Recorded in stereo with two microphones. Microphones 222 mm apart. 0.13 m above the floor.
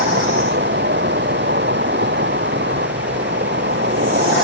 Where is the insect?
50° right (ahead or behind).